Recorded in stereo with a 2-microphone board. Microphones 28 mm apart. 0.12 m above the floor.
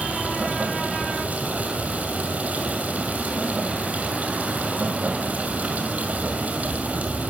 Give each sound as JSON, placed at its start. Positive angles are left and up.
{"t": 0.0, "sound": "running water", "side_deg": -70, "distance_m": 2.0}